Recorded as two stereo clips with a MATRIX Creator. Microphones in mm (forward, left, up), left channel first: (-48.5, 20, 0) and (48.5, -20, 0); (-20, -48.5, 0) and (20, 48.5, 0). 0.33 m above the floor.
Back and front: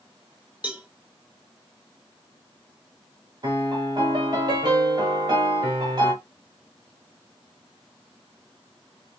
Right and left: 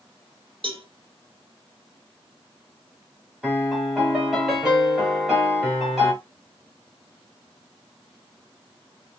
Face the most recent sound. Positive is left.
turn(degrees=-15)